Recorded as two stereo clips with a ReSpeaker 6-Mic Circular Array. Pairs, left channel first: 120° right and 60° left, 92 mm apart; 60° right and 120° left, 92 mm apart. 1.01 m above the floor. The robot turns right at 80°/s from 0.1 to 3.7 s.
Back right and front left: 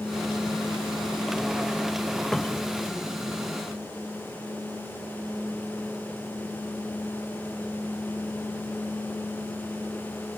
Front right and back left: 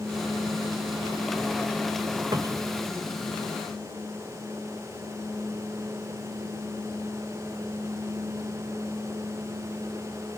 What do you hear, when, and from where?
2.3 s a cupboard door: 155° left; by 2.8 s 170° right